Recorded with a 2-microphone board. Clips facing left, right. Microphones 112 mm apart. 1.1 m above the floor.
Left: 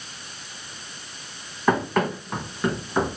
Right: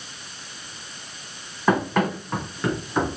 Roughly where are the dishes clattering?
No dishes clattering in this recording.